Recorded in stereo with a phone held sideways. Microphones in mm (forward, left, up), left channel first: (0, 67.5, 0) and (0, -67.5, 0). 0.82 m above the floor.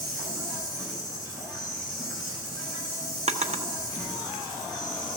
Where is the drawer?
55° right (ahead or behind), 0.6 m.